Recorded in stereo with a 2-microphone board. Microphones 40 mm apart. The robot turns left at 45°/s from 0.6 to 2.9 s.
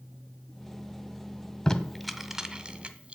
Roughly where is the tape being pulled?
Centre.